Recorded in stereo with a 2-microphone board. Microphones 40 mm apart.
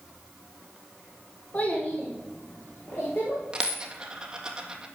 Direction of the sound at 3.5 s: 20° right (ahead or behind).